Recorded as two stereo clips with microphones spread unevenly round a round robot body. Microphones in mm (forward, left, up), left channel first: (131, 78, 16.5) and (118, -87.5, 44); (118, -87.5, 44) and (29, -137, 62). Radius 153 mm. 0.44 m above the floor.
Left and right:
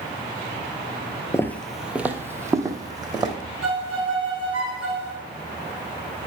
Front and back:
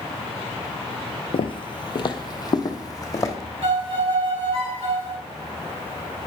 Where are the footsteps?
10° left, 0.5 m; by 3.4 s 30° right, 1.6 m.